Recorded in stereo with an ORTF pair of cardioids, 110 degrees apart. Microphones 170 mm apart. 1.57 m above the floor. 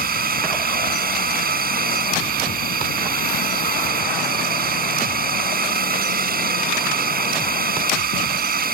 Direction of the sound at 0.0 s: 65° right.